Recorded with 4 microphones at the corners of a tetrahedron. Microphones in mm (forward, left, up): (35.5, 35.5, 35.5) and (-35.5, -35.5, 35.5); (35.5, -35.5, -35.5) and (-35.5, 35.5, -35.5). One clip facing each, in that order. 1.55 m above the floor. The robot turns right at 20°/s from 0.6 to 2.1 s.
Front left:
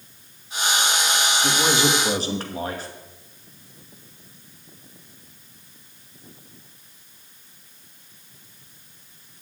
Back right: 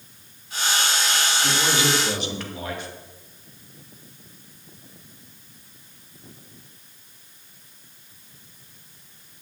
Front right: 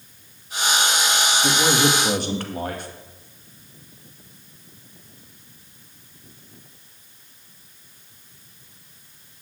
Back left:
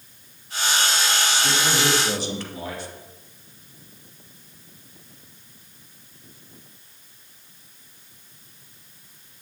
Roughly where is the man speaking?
Ahead.